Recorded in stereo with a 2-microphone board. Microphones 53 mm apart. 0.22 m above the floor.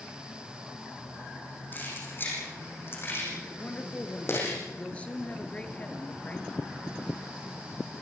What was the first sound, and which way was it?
Keys jangling, 40° left (ahead or behind).